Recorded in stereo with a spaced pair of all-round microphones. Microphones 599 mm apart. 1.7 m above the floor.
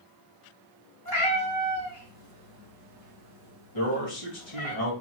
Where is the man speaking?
70° left (ahead or behind), 2.5 m.